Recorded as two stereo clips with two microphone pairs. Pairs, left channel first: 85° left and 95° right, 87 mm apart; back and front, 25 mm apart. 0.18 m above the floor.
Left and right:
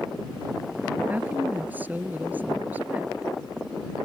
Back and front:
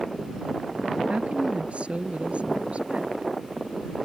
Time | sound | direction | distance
1.1 | a woman speaking | 25° right | ?